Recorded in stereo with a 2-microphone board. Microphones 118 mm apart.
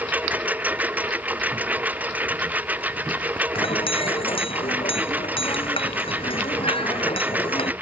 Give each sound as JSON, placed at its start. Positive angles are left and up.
{"t": 0.0, "sound": "a lawn mower", "side_deg": -15}
{"t": 3.5, "sound": "a clink", "side_deg": 50}